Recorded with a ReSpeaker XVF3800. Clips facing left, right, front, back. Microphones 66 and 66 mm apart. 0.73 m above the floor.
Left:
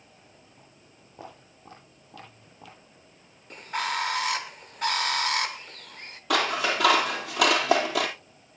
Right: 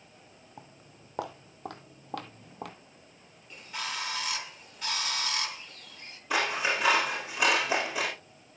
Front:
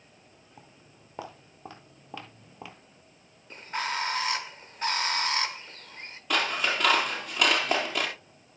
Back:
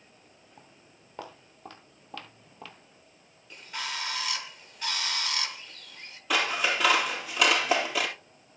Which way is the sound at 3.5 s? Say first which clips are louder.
Left 8 dB, front 5 dB; 50° left.